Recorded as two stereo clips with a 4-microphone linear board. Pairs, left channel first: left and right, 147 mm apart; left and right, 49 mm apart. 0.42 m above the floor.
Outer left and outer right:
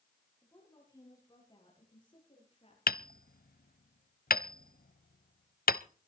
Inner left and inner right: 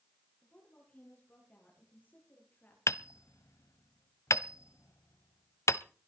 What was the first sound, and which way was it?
A woman speaking, 20° left (ahead or behind).